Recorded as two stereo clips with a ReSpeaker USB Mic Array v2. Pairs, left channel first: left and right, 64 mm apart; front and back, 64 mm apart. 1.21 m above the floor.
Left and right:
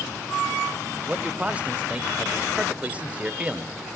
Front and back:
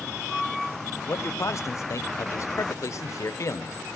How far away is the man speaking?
About 0.6 m.